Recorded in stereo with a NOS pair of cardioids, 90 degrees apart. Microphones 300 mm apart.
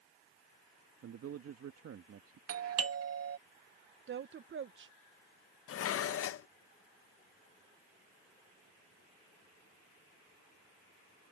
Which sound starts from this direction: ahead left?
Dishes clattering, at 5.7 s.